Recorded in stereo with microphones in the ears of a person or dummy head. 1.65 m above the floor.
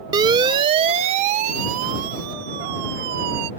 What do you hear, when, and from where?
0.1 s a siren: 20° right (ahead or behind); by 3.5 s 60° right (ahead or behind)